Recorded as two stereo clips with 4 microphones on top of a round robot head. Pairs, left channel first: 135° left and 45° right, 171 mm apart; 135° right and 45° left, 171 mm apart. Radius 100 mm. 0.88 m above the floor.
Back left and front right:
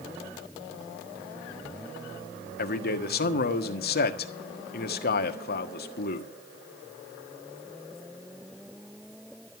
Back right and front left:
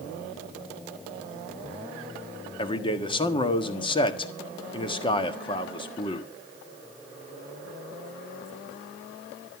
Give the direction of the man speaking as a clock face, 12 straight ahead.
7 o'clock.